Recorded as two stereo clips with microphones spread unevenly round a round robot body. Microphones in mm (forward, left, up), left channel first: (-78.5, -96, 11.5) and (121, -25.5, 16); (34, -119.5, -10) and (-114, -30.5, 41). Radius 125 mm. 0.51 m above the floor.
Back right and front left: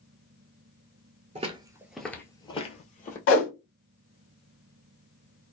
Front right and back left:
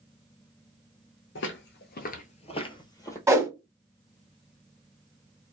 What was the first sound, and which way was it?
Footsteps, 30° right.